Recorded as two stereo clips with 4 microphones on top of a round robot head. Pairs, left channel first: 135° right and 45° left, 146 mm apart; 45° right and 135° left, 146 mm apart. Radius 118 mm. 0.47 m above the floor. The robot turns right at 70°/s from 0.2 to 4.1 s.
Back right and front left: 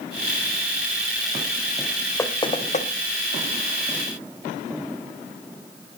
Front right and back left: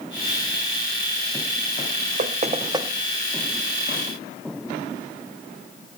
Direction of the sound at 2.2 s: 155° left.